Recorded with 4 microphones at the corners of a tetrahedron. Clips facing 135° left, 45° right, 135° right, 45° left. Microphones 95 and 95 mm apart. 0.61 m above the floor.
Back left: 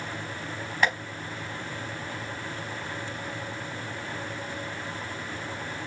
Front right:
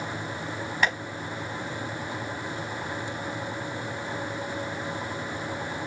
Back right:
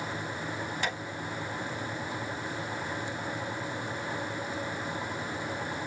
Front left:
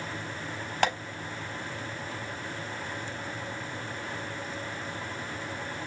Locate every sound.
0.8 s tapping: 50° left, 4 m